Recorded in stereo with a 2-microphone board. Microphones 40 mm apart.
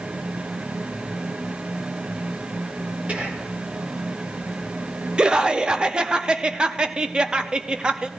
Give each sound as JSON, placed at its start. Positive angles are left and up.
{"t": 3.1, "sound": "whispering", "side_deg": -35, "distance_m": 2.0}
{"t": 5.2, "sound": "laughter", "side_deg": -20, "distance_m": 0.6}